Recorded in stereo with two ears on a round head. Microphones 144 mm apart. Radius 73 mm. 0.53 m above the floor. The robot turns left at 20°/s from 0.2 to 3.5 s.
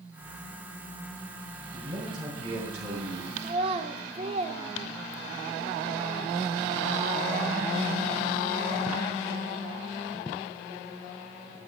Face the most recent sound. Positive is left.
turn(degrees=-35)  # may be behind; listen again after turning